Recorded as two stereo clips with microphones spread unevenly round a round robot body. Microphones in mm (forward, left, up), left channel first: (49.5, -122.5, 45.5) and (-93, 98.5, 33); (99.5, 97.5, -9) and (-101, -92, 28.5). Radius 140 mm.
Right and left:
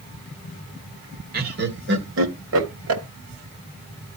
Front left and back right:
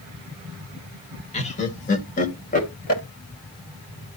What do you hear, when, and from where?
1.3 s laughter: 90° left, 1.9 m; by 3.0 s 95° left, 3.5 m